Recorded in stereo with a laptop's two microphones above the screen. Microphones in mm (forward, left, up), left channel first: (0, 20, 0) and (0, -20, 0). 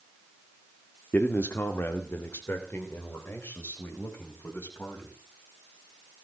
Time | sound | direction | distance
1.1 | a man speaking | 55° left (ahead or behind) | 1.5 m